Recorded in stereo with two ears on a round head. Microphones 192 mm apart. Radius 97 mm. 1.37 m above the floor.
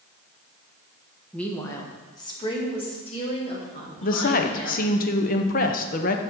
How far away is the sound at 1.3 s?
About 1.2 m.